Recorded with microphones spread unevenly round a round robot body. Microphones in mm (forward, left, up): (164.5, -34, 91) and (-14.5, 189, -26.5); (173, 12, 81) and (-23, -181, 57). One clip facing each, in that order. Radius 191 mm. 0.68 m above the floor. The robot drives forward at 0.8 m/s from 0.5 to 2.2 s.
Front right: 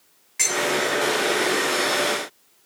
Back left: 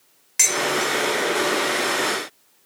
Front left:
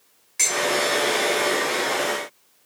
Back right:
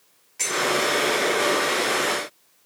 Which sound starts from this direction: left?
Dishes clattering, at 0.4 s.